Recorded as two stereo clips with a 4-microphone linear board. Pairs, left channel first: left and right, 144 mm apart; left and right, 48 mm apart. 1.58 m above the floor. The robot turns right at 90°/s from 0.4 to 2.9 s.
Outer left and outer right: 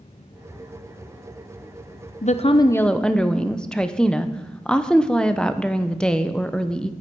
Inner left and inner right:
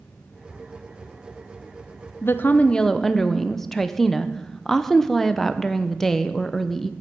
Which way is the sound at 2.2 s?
110° left.